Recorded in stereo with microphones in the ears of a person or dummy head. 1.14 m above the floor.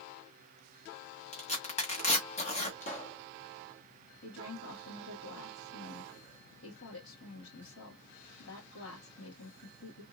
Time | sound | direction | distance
1.3 | tearing paper | 35° left (ahead or behind) | 1.1 m
2.8 | a pop | 35° left (ahead or behind) | 1.3 m
4.2 | a woman speaking | 70° left (ahead or behind) | 1.8 m